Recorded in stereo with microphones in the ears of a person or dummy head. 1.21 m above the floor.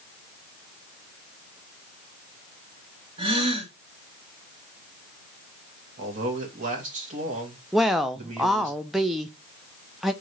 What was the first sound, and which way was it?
A gasp, 30° right (ahead or behind).